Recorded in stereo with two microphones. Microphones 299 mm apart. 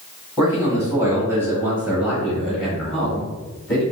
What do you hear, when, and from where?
0.4 s a man speaking: 10° right (ahead or behind), 1.8 m; by 3.8 s 5° left (ahead or behind), 1.6 m